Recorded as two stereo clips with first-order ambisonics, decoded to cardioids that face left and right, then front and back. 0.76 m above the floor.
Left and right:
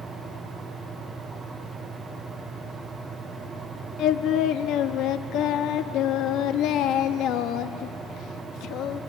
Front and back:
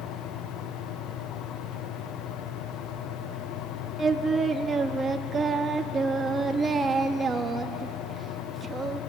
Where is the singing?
115° left, 0.8 m.